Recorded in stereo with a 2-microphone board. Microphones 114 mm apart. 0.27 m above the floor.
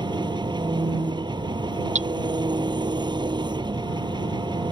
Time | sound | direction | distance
0.0 | an engine running | 40° right (ahead or behind) | ?
1.9 | hammering | 75° right (ahead or behind) | ?